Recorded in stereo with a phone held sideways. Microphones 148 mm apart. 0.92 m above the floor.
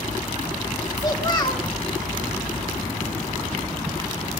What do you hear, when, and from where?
1.0 s a child speaking: 30° left (ahead or behind), 1.7 m